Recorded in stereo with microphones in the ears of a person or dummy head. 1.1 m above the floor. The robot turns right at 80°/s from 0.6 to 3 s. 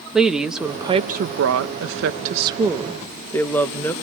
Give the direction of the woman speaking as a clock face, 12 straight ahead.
6 o'clock.